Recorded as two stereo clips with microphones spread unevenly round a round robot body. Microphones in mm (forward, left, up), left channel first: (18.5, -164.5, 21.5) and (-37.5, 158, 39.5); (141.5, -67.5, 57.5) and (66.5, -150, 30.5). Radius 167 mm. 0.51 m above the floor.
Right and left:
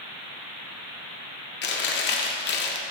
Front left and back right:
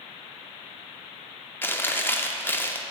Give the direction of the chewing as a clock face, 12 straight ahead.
1 o'clock.